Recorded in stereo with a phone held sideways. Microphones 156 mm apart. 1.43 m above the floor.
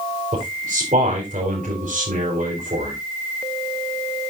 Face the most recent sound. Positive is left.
turn(degrees=-60)  # may be behind; listen again after turning